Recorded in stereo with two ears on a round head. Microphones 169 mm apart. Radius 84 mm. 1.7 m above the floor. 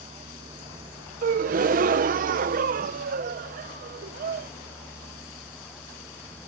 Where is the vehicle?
25° right (ahead or behind); by 6.5 s centre (ahead or behind).